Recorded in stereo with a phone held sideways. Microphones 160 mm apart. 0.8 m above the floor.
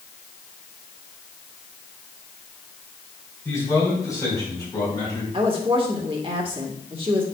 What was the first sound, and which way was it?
A man speaking, 20° left (ahead or behind).